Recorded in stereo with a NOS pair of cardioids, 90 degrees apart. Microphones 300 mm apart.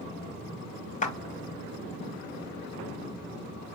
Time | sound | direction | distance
1.0 | a clap | 25° left | 0.5 m